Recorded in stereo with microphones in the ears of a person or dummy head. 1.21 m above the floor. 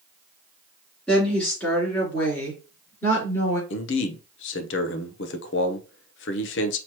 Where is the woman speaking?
10° left (ahead or behind), 3 m; by 3.6 s 20° left (ahead or behind), 4 m.